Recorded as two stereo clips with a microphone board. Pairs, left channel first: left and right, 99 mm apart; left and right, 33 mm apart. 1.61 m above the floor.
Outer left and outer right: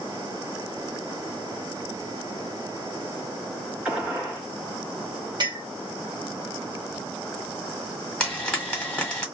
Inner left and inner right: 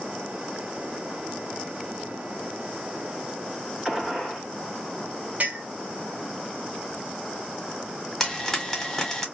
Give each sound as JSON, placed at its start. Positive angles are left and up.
{"t": 3.9, "sound": "a gunshot", "side_deg": -10, "distance_m": 1.2}
{"t": 5.4, "sound": "a clink", "side_deg": -45, "distance_m": 1.0}
{"t": 8.2, "sound": "frying", "side_deg": 10, "distance_m": 1.5}